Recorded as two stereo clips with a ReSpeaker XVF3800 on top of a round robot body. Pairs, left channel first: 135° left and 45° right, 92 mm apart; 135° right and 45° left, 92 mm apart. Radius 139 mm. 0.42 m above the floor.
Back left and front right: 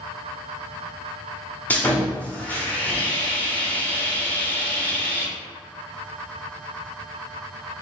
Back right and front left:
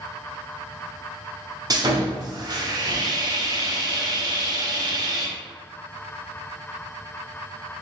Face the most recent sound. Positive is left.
turn(degrees=70)